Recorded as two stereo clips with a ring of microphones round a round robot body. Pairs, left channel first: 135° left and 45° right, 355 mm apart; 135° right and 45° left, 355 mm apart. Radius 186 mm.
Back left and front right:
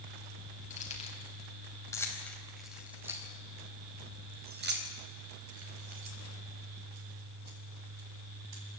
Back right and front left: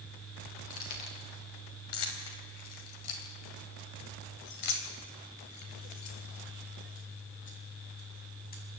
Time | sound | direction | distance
0.7 | keys jangling | 155° right | 4 m